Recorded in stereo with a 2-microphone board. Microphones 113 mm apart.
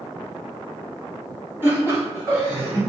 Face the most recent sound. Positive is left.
turn(degrees=-30)  # may be behind; listen again after turning